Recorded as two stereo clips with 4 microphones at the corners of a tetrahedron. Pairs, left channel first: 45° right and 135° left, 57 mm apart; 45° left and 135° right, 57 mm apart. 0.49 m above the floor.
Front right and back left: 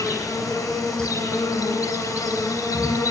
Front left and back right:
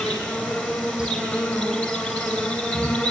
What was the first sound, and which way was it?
An insect, 40° right.